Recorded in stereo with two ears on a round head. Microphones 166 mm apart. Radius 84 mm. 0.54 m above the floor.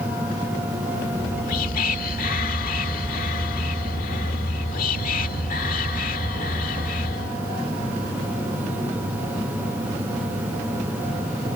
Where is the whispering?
50° left (ahead or behind).